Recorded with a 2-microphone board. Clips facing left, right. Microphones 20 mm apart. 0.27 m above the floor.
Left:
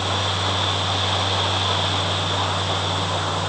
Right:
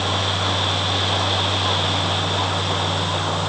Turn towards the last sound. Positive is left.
No sound to turn to.